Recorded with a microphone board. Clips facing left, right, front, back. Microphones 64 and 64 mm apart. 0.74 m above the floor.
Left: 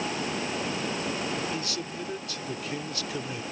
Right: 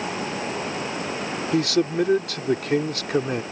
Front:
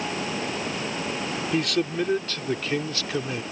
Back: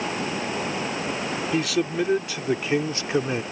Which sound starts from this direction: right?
A man speaking, at 1.5 s.